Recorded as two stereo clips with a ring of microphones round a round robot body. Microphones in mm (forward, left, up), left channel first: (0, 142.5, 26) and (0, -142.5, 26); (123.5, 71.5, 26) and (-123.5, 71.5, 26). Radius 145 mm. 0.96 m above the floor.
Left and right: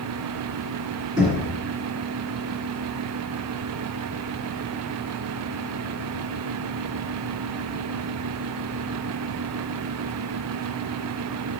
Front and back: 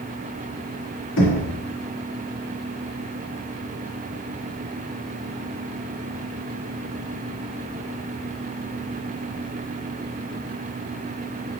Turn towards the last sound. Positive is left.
turn(degrees=-15)